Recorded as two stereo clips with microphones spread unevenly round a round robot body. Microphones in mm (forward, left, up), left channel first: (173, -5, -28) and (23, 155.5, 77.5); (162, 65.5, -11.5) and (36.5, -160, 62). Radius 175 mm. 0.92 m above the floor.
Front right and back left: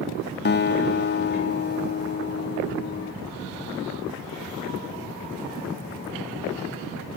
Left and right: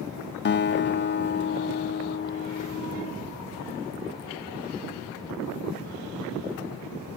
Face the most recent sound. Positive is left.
turn(degrees=5)